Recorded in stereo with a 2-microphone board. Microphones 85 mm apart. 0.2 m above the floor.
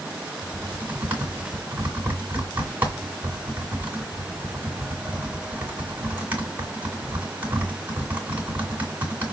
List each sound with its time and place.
0.4 s typing on a keyboard: 20° right (ahead or behind), 2 m